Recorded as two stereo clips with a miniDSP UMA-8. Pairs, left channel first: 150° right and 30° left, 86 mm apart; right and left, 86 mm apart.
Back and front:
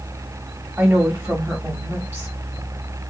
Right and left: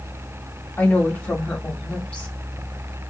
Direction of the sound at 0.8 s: 20° right.